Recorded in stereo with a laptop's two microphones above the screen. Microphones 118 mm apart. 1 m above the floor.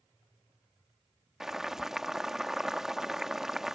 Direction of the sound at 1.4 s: 5° right (ahead or behind).